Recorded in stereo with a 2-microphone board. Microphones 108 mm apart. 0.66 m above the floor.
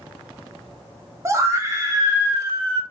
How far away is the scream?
About 0.8 m.